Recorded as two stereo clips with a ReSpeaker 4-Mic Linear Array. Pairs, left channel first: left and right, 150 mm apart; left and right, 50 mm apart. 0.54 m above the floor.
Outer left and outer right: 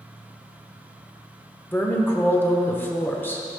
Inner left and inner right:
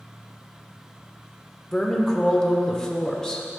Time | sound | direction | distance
1.7 | a woman speaking | 15° left (ahead or behind) | 1.1 m